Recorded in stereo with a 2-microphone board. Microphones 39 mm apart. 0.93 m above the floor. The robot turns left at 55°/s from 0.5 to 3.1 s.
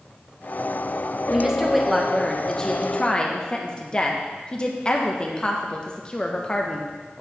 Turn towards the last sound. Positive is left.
turn(degrees=25)  # may be behind; listen again after turning